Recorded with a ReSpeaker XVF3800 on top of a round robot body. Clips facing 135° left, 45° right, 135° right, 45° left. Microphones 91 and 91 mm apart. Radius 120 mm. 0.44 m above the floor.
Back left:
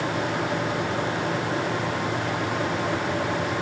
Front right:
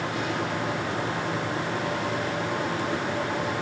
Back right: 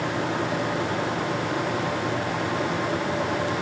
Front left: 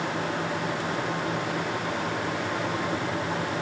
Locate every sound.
Only background noise.